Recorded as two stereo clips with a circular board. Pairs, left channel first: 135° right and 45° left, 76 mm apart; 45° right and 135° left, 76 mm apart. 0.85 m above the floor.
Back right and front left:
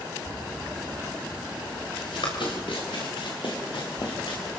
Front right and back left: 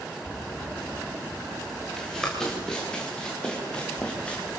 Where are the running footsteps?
130° right, 6.5 m; by 4.5 s 120° right, 7.5 m.